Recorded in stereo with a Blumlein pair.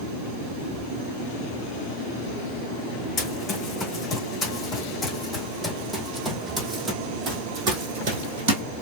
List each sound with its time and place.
3.2 s running footsteps: 25° left, 3 m; by 8.6 s 50° right, 2 m